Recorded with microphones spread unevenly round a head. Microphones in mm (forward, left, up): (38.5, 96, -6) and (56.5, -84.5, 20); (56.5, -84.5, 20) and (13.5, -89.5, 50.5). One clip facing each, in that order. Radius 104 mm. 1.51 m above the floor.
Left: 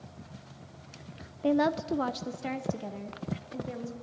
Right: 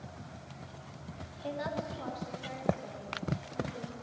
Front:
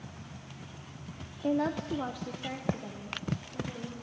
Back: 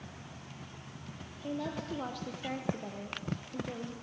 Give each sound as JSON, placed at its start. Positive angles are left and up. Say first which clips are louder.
{"t": 1.4, "sound": "a woman speaking", "louder": "left 11 dB, front 7 dB", "azimuth_deg": 60, "distance_m": 0.5}